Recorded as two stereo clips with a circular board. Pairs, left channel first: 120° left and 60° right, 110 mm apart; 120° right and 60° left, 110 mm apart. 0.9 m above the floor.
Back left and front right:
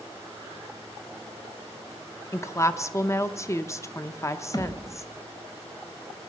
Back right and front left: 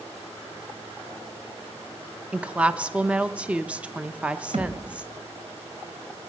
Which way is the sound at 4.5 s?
70° left.